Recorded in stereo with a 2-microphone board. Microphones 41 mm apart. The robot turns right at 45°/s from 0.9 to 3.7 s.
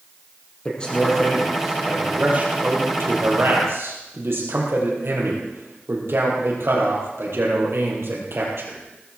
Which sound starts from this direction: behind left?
A man speaking, at 0.7 s.